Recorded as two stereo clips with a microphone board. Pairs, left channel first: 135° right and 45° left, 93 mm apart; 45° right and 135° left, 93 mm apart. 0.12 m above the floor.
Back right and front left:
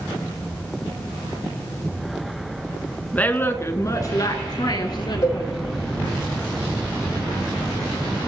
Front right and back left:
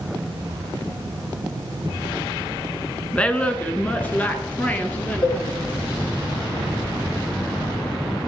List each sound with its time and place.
3.1 s a woman speaking: 95° right, 1.0 m; by 5.7 s 115° right, 2 m
5.2 s a cowbell: 85° right, 4.5 m